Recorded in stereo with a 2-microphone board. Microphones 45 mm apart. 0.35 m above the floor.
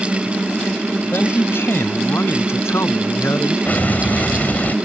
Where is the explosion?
40° left (ahead or behind).